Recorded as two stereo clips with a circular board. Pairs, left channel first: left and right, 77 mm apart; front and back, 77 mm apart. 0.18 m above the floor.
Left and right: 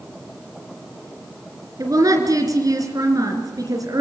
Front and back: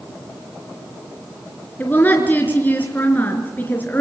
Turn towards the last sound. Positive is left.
turn(degrees=-60)